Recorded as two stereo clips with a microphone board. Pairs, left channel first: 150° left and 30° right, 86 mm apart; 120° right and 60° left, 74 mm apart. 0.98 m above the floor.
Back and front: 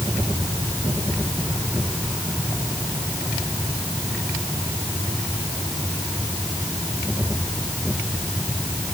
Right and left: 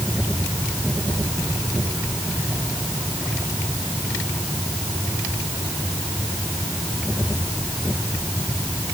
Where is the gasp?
No gasp in this recording.